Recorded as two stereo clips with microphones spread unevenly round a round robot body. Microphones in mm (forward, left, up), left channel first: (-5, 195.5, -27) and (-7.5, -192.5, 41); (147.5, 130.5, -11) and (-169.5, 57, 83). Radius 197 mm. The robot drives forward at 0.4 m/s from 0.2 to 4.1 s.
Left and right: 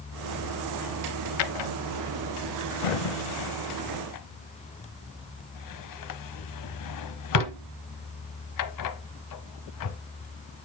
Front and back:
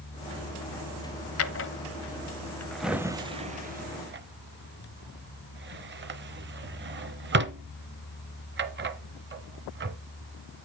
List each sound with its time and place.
1.4 s a drawer: 60° left, 0.9 m; by 10.0 s 130° left, 1.0 m